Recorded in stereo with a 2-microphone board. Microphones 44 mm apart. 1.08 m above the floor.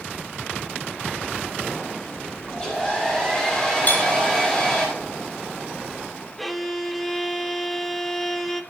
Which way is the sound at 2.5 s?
20° left (ahead or behind).